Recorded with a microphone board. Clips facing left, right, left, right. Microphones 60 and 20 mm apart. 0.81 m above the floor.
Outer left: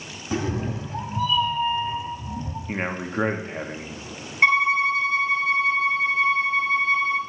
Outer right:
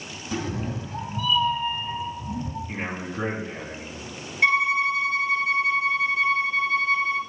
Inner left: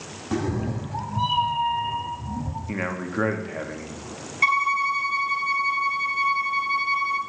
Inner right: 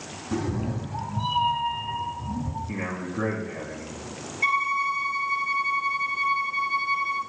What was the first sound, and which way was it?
A cat meowing, 25° left (ahead or behind).